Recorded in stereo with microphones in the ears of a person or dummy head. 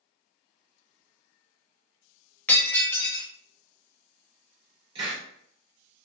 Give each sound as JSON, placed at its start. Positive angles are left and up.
{"t": 2.5, "sound": "breaking glass", "side_deg": 15, "distance_m": 1.3}
{"t": 5.0, "sound": "a hiss", "side_deg": -25, "distance_m": 1.8}